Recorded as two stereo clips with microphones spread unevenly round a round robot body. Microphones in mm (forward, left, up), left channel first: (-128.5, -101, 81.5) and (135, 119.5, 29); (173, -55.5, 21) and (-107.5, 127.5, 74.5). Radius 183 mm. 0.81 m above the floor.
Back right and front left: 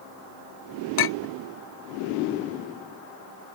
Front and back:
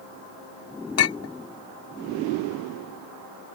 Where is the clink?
85° right.